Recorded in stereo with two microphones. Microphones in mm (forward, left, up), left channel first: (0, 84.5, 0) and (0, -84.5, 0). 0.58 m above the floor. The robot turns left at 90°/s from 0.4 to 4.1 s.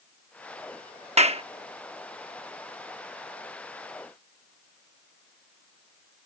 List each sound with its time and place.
1.2 s a clap: 45° right (ahead or behind); by 1.4 s 40° right (ahead or behind)